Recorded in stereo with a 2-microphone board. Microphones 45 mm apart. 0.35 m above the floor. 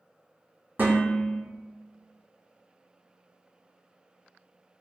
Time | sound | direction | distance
0.8 | dishes clattering | 45° right (ahead or behind) | 1.6 m